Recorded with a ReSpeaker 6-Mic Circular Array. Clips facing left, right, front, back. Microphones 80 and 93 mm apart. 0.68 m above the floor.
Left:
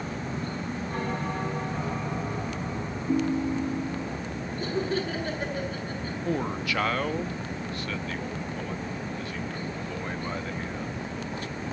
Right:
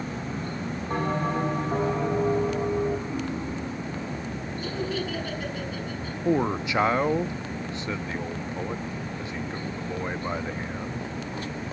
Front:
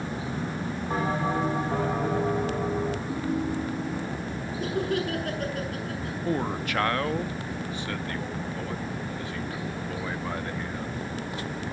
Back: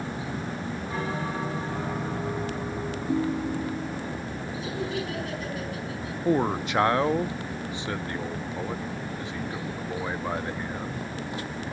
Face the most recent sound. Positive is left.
turn(degrees=-135)